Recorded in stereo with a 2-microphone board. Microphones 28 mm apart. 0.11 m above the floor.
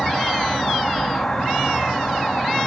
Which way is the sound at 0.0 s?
10° left (ahead or behind).